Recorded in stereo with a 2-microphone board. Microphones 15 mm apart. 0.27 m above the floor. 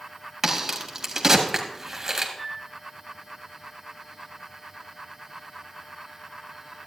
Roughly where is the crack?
Right.